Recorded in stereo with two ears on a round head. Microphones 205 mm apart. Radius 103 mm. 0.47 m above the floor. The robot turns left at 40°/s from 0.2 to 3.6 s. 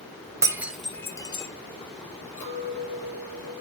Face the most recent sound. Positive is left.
turn(degrees=0)